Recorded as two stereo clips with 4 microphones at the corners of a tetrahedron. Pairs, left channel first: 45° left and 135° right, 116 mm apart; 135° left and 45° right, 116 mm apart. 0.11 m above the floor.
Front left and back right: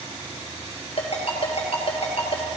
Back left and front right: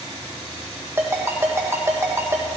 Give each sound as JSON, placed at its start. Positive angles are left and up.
{"t": 1.0, "sound": "a ringtone", "azimuth_deg": 20, "distance_m": 1.9}